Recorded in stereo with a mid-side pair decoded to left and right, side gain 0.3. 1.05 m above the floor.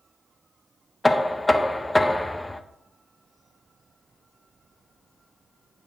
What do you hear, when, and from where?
1.0 s knocking: 15° left, 0.6 m